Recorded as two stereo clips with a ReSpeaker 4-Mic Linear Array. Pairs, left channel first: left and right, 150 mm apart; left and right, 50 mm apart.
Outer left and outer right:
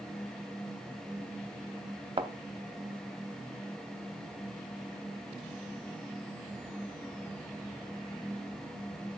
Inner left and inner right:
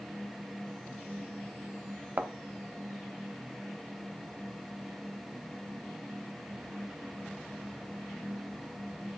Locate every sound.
2.2 s a thud: 35° right (ahead or behind), 0.6 m